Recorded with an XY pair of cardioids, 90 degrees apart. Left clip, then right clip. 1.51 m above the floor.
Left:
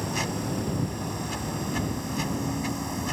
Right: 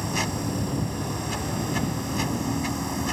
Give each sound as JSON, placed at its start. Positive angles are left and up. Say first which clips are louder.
{"t": 0.0, "sound": "a machine running", "louder": "right 2 dB", "azimuth_deg": -20}